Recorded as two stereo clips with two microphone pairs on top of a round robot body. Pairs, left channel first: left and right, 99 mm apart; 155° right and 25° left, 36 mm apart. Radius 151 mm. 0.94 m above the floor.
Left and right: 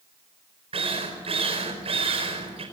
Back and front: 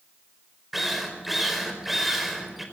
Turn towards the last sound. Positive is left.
turn(degrees=-60)